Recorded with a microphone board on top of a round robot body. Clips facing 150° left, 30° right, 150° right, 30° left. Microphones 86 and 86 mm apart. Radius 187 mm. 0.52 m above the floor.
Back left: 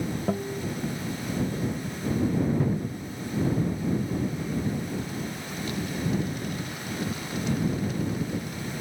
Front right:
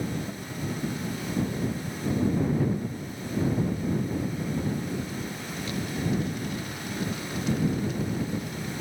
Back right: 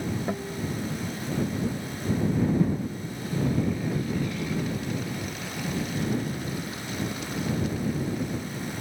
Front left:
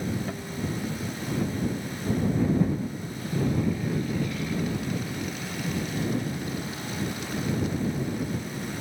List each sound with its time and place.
0.3 s a guitar: 145° left